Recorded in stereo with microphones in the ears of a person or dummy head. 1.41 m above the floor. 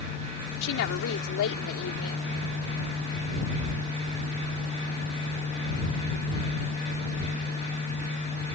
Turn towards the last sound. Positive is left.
turn(degrees=85)